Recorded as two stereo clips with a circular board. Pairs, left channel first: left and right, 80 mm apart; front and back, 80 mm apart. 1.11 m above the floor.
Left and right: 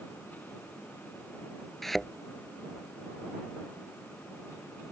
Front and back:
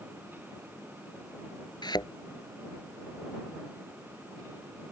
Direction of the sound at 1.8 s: 5° left.